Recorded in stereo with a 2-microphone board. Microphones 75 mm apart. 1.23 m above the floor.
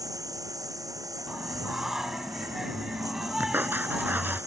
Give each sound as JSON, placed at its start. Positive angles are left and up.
{"t": 0.0, "sound": "a lawn mower", "side_deg": -50}
{"t": 1.3, "sound": "singing", "side_deg": -5}
{"t": 3.4, "sound": "writing", "side_deg": -25}